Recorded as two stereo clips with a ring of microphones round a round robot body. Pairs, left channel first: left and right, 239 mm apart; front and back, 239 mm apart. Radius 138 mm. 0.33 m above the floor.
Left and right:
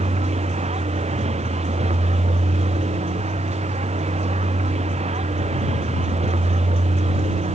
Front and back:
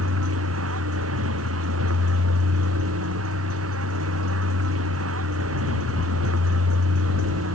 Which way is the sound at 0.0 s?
155° right.